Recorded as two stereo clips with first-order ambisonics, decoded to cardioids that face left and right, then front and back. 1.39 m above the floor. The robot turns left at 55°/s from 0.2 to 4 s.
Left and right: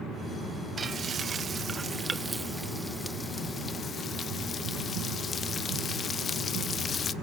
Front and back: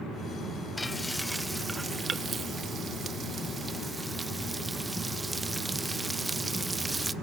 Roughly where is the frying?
Ahead right.